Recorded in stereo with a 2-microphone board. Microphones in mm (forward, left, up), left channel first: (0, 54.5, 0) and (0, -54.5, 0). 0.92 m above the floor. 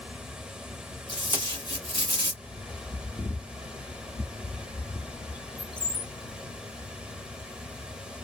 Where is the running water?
10° right (ahead or behind), 0.8 m.